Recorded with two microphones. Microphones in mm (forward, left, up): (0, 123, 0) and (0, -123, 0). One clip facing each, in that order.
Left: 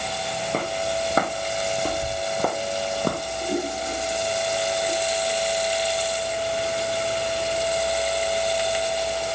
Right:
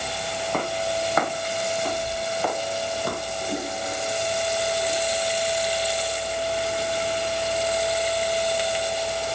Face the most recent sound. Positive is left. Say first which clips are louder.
# left 5 dB
turn(degrees=30)  # may be behind; listen again after turning